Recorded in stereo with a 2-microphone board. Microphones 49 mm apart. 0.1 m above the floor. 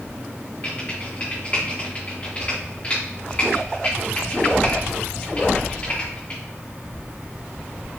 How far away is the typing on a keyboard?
About 4 m.